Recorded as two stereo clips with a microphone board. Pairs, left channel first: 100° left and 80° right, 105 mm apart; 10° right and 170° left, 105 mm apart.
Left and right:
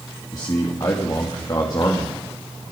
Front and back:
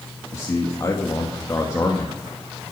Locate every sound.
0.3 s a man speaking: 50° left, 2.5 m